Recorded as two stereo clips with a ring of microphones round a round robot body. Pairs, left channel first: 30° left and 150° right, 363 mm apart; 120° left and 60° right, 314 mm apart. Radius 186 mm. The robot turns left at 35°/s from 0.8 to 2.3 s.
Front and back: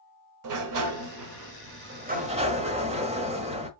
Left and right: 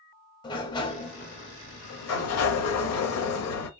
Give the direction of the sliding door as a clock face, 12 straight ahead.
6 o'clock.